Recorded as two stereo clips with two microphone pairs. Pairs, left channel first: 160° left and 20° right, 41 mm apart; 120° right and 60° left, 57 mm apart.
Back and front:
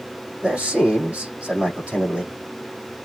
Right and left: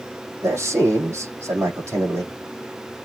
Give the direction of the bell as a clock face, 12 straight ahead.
I don't hear a bell.